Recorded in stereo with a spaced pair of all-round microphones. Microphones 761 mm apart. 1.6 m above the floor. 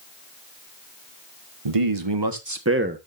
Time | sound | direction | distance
1.6 | a man speaking | 45° right (ahead or behind) | 1.2 m